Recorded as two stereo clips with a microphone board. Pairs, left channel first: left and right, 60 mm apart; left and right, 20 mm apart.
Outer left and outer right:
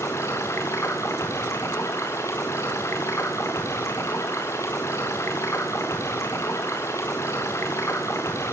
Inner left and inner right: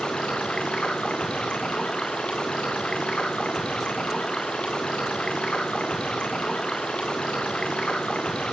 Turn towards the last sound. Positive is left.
turn(degrees=55)  # may be behind; listen again after turning